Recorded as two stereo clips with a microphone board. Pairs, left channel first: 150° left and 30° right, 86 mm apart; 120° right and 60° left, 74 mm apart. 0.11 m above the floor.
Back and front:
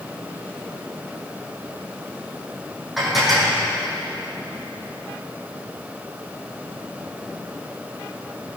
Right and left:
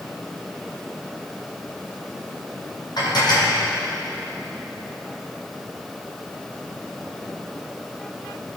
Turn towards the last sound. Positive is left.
turn(degrees=-120)